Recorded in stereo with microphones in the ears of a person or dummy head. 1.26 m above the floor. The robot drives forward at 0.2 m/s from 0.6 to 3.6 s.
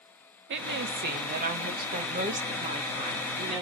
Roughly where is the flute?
I don't hear a flute.